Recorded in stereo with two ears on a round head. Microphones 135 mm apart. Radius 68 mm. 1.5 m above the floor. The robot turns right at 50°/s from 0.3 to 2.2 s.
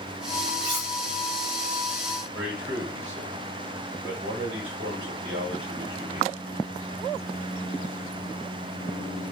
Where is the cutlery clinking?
35° right (ahead or behind), 1.6 m; by 0.9 s 25° right (ahead or behind), 1.6 m.